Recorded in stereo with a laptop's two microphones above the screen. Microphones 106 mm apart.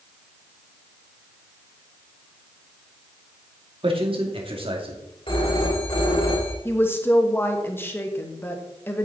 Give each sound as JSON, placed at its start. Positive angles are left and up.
{"t": 3.8, "sound": "a man speaking", "side_deg": -60, "distance_m": 2.5}
{"t": 5.3, "sound": "a phone ringing", "side_deg": 50, "distance_m": 3.0}
{"t": 6.7, "sound": "a woman speaking", "side_deg": 20, "distance_m": 1.2}